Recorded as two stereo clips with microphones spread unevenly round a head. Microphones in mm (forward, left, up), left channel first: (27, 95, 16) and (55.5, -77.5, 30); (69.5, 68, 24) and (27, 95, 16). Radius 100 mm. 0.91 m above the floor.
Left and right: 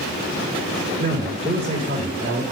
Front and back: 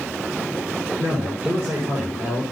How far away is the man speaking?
About 4 m.